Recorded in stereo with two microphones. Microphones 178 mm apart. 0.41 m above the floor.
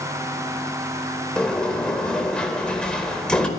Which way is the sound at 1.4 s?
5° left (ahead or behind).